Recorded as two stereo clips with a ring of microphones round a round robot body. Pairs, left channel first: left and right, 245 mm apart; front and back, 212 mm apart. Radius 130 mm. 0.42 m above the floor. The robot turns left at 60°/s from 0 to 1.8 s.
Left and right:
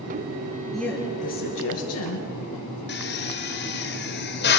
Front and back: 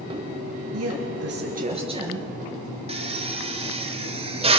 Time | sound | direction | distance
0.7 | a woman speaking | straight behind | 6.5 m
2.9 | a drill | 125° left | 2 m